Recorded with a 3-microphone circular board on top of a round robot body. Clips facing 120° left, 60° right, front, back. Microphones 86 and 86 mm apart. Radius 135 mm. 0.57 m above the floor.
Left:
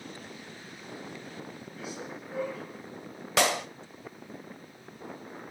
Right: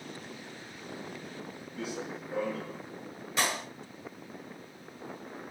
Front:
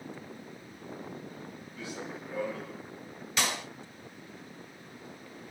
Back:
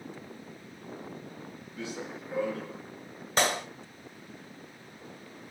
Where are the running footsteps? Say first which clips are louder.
Right 3 dB, back 2 dB; 110° right, 4.5 m.